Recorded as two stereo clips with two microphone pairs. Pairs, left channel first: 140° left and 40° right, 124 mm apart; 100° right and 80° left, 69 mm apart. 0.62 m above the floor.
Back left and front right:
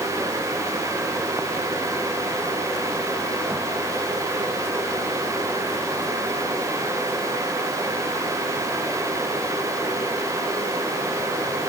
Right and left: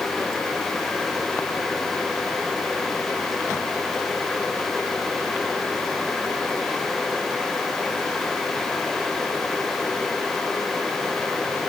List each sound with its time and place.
Only background noise.